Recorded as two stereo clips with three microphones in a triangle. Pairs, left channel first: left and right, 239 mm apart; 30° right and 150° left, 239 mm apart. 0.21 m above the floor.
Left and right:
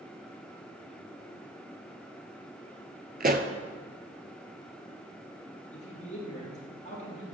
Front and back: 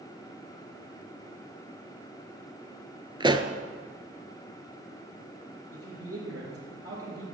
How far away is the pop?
About 0.6 m.